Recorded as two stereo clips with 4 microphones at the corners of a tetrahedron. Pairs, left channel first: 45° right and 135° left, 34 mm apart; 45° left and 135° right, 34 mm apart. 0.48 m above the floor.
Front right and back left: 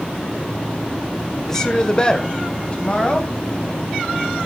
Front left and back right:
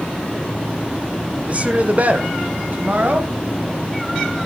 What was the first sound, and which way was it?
A woman speaking, 110° right.